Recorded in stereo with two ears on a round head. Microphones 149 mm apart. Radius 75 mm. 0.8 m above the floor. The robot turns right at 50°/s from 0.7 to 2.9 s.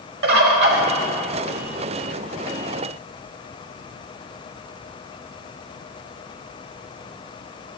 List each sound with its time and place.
0.2 s a bird: 70° right (ahead or behind), 1.1 m